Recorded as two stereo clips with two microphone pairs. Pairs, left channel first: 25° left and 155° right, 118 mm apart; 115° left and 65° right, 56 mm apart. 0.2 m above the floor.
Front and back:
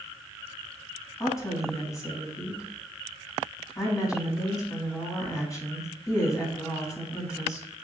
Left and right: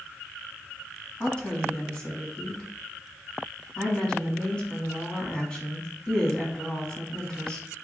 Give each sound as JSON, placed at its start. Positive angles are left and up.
{"t": 1.2, "sound": "a woman speaking", "azimuth_deg": 55, "distance_m": 1.3}